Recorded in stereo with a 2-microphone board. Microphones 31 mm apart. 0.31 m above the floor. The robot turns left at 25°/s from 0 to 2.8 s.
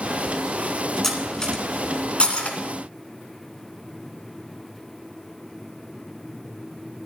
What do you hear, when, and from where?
1.0 s cutlery clinking: 15° left (ahead or behind), 2 m; by 2.6 s 50° left (ahead or behind), 2 m